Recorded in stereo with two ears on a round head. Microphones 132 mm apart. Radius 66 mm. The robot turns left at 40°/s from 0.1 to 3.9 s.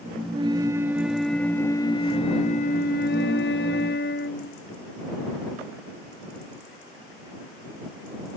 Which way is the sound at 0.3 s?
140° right.